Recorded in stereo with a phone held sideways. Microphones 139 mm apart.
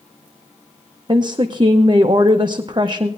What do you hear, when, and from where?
1.1 s a woman speaking: 35° right (ahead or behind), 0.5 m